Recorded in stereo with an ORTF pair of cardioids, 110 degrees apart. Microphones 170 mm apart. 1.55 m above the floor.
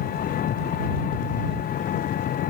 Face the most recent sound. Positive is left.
turn(degrees=55)